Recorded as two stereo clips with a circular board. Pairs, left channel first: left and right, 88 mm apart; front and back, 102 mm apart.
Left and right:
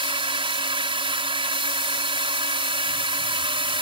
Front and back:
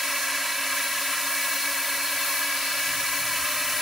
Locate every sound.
0.0 s a drone: 90° right